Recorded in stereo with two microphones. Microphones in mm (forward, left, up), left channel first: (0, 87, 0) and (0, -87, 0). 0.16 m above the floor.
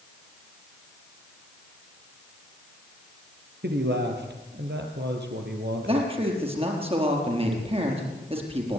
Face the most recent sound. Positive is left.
turn(degrees=-30)  # may be behind; listen again after turning